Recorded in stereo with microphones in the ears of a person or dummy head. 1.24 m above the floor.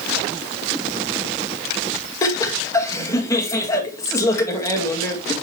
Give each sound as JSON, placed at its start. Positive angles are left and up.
{"t": 2.2, "sound": "laughter", "side_deg": 20, "distance_m": 1.8}